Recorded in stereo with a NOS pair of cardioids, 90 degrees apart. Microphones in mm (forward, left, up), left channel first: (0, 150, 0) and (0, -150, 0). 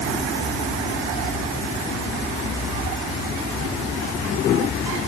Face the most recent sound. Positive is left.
No sound to turn to.